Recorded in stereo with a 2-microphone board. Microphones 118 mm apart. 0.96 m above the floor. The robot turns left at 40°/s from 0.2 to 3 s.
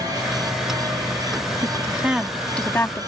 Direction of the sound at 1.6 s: 30° right (ahead or behind).